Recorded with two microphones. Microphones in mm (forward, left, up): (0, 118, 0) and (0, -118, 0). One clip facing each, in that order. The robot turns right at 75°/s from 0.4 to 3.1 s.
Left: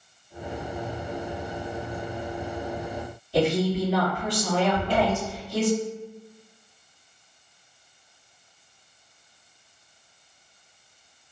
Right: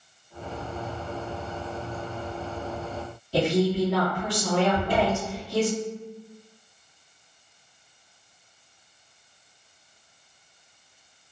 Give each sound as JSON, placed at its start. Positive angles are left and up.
{"t": 3.3, "sound": "a woman speaking", "side_deg": -85, "distance_m": 1.5}
{"t": 4.7, "sound": "a cupboard door", "side_deg": -50, "distance_m": 1.8}